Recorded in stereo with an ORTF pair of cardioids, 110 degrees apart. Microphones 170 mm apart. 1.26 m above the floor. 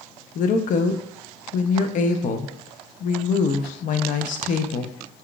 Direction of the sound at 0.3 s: 50° left.